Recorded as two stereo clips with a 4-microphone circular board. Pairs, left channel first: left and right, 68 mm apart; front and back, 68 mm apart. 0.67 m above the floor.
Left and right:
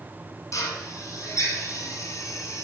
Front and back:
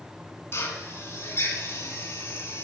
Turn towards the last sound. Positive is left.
turn(degrees=50)